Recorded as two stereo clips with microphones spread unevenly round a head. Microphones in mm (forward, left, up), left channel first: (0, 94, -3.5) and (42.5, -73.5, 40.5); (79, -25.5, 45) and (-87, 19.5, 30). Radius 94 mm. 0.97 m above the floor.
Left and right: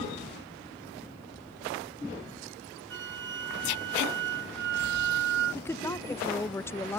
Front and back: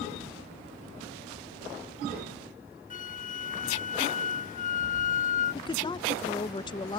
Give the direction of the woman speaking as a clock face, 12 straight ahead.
10 o'clock.